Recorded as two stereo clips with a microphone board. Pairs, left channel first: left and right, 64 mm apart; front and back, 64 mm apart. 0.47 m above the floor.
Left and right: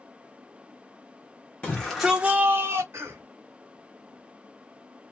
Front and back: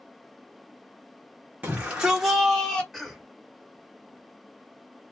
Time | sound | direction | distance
1.6 | a shout | 140° left | 1.1 m
2.9 | a cough | 90° right | 1.5 m